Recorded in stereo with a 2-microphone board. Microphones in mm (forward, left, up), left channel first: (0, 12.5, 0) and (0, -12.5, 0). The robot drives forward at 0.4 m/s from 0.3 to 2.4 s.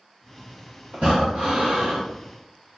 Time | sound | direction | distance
0.9 | breathing | 85° right | 2.5 m